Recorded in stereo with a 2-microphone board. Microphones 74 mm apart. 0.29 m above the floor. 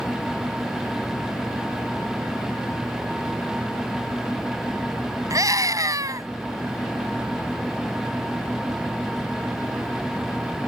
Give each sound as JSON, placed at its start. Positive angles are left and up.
{"t": 5.3, "sound": "a scream", "side_deg": -55}